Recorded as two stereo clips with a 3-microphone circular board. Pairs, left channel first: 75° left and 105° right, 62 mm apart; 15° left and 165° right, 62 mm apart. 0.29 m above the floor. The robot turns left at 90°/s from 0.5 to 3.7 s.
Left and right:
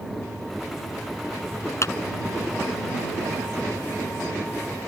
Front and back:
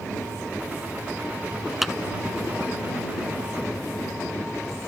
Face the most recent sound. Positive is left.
turn(degrees=-60)